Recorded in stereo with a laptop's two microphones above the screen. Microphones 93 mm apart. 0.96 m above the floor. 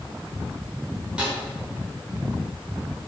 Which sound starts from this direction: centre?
A snare drum, at 1.2 s.